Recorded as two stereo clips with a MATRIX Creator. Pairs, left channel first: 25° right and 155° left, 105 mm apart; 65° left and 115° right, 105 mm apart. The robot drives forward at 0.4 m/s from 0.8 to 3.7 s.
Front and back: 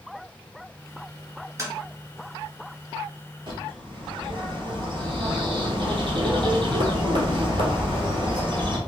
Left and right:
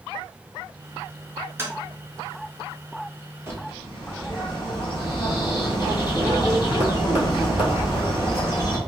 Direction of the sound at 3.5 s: 175° right.